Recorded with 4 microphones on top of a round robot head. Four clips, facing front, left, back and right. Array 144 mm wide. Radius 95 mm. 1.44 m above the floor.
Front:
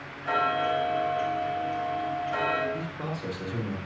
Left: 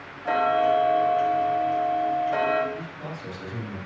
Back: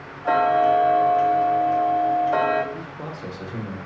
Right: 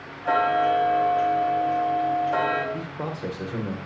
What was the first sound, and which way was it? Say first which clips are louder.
Ticking: even, back 9 dB; 170° right.